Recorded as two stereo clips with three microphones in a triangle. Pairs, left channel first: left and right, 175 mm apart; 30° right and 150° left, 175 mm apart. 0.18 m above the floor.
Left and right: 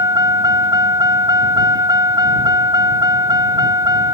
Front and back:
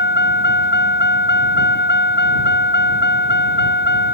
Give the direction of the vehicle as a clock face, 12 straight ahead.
1 o'clock.